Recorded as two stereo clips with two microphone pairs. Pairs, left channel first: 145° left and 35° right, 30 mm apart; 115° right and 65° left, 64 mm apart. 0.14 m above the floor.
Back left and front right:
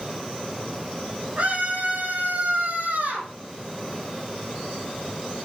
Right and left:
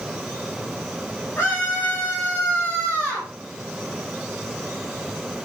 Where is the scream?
55° right, 4.5 m; by 3.3 s 40° right, 6.5 m.